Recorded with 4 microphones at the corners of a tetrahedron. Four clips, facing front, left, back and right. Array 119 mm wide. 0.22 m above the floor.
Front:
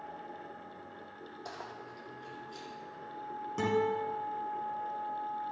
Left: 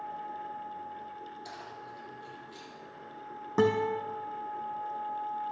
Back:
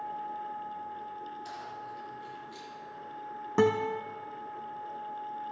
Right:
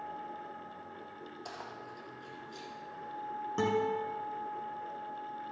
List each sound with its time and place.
1.4 s keys jangling: 35° right, 4.5 m; by 2.7 s 50° right, 4 m
3.6 s a guitar: 140° left, 3 m